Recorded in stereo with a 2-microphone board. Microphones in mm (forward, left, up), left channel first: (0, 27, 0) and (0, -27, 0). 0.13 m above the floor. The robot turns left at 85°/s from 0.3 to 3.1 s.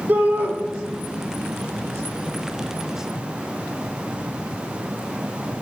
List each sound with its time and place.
0.1 s a shout: 45° right (ahead or behind), 5 m; by 0.5 s 25° right (ahead or behind), 5 m